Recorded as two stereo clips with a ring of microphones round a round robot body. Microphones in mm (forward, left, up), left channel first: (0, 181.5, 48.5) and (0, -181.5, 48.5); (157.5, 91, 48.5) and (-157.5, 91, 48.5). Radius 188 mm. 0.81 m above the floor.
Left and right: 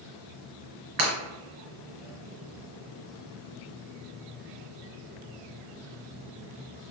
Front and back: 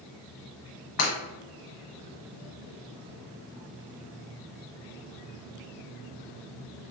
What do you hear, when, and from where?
1.0 s breaking glass: 40° right, 1.2 m